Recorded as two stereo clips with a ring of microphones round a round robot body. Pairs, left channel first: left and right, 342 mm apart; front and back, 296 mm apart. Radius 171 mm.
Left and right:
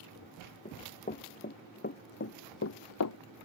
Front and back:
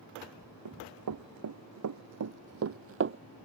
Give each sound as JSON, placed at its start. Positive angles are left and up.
{"t": 0.7, "sound": "running footsteps", "azimuth_deg": 160}